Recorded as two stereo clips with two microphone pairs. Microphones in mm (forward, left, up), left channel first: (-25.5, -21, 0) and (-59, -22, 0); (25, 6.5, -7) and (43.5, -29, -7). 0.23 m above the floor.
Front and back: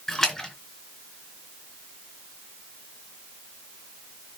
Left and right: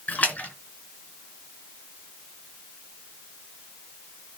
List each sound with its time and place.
0.1 s a splash: 75° left, 2.5 m